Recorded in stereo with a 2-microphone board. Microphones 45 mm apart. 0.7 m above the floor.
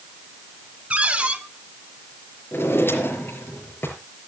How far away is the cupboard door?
About 2 m.